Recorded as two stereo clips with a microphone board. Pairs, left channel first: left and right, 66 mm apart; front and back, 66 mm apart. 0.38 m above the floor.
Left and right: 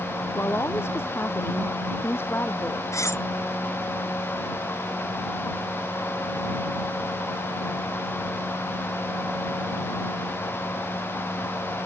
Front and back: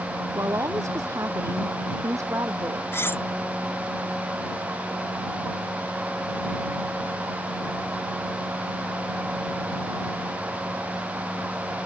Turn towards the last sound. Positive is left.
turn(degrees=55)